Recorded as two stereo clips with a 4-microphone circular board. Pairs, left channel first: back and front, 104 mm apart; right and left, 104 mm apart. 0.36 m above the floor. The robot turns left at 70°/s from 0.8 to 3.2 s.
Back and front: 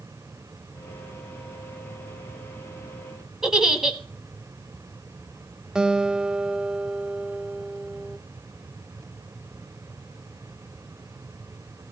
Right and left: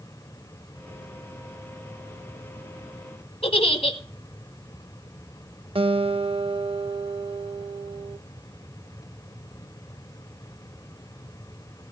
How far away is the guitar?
About 0.5 m.